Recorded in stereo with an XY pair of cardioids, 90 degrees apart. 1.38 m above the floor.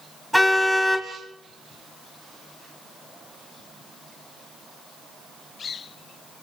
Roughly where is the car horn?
Ahead.